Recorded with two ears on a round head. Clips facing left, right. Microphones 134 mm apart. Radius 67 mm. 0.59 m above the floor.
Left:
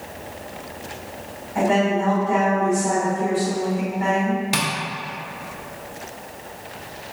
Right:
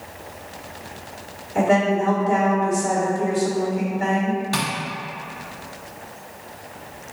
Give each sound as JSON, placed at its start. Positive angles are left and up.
{"t": 1.6, "sound": "a woman speaking", "side_deg": -40, "distance_m": 1.7}
{"t": 4.5, "sound": "tapping", "side_deg": 20, "distance_m": 0.7}